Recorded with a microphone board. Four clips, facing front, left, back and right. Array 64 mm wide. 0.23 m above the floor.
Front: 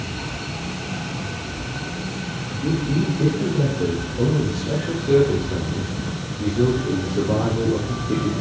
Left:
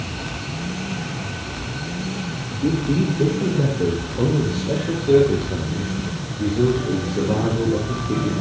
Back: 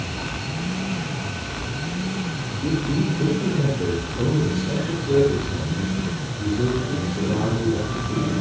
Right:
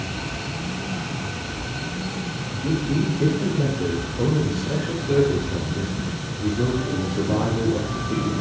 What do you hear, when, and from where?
2.6 s a man speaking: 85° left, 7 m; by 8.3 s 50° left, 6 m